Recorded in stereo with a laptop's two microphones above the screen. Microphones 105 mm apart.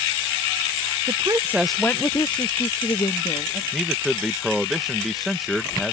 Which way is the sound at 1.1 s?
45° right (ahead or behind).